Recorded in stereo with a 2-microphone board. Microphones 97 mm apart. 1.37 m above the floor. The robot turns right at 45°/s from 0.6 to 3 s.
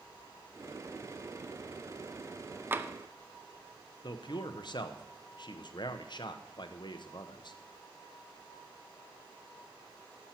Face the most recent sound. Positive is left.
turn(degrees=55)  # may be behind; listen again after turning